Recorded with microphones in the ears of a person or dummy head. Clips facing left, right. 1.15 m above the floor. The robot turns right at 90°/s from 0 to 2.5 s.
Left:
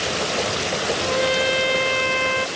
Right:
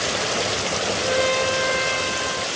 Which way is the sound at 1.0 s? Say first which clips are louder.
Right 1 dB; 20° right.